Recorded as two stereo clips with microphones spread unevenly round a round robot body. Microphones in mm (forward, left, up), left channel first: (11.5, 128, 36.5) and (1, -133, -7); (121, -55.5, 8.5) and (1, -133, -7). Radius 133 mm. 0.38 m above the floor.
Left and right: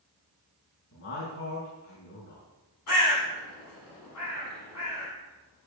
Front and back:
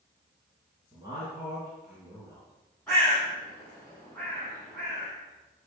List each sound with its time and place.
0.9 s a man speaking: 135° left, 4.5 m
2.9 s a bird: 120° left, 6.5 m